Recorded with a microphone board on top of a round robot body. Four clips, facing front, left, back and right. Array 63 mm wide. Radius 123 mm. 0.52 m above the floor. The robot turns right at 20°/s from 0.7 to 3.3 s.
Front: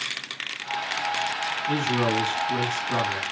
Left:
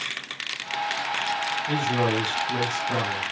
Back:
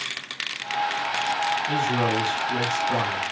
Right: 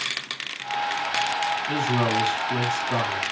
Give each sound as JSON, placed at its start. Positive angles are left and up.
{"t": 1.7, "sound": "a man speaking", "azimuth_deg": 85, "distance_m": 3.5}